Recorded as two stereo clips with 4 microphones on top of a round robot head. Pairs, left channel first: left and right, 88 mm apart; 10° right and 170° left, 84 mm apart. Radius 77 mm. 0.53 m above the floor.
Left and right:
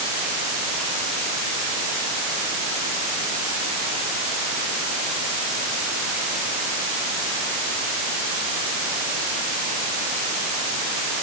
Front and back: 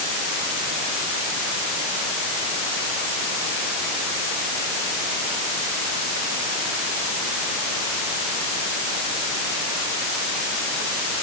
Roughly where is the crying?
No crying in this recording.